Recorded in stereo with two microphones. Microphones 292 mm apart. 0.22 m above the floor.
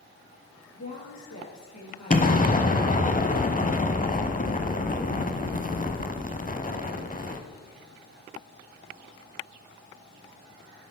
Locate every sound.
0.8 s a woman speaking: 70° left (ahead or behind), 4 m; by 3.1 s 50° left (ahead or behind), 4 m
2.1 s an explosion: 30° left (ahead or behind), 0.7 m